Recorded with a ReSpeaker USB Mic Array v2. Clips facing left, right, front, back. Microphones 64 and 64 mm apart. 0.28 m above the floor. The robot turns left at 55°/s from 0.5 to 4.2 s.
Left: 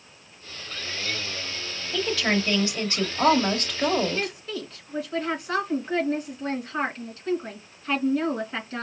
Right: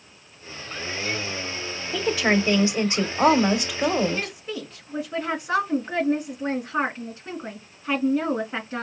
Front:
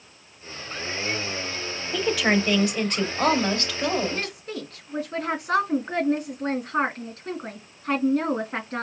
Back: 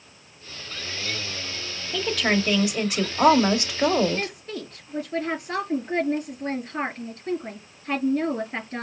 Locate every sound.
1.9 s a woman speaking: 55° right, 0.9 m; by 4.3 s straight behind, 0.9 m
4.1 s a woman speaking: 20° right, 3 m; by 8.8 s 25° right, 3 m